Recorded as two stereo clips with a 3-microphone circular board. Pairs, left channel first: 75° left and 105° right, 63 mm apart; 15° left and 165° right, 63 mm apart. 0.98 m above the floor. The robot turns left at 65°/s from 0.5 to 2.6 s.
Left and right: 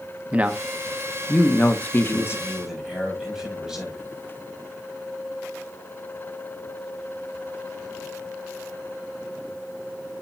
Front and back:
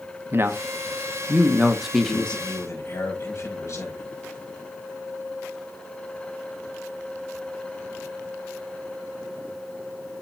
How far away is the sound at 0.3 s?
About 1.0 m.